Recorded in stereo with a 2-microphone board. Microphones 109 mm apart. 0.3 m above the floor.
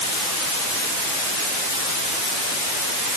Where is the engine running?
I don't hear an engine running.